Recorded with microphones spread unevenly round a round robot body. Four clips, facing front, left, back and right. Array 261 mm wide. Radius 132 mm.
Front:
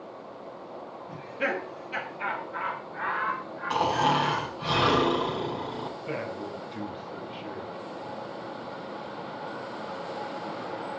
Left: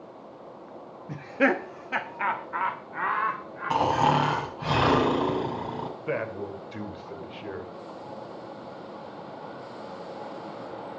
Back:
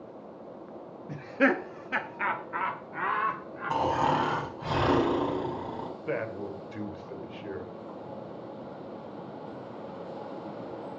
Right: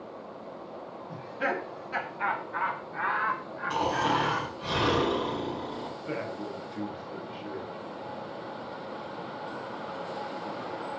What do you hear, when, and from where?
1.1 s laughter: 125° left, 1.1 m; by 4.5 s 170° left, 2.5 m
3.7 s snoring: 70° left, 5.5 m
6.0 s a man speaking: 90° left, 3 m